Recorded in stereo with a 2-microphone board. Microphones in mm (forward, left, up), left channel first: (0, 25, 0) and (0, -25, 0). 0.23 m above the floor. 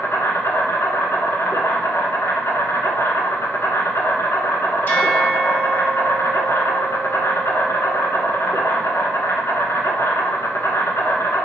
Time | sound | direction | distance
0.0 | an insect | 75° left (ahead or behind) | 0.8 m
4.9 | a bell | 35° left (ahead or behind) | 1.1 m